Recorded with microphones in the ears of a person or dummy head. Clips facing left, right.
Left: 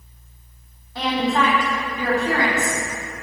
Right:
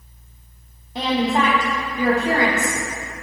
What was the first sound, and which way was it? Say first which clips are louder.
A woman speaking: right 1 dB; 15° right (ahead or behind).